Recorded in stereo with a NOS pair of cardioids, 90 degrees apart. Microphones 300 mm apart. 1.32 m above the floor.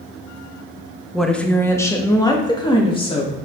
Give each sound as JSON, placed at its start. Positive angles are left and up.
{"t": 1.1, "sound": "a woman speaking", "azimuth_deg": 0, "distance_m": 1.2}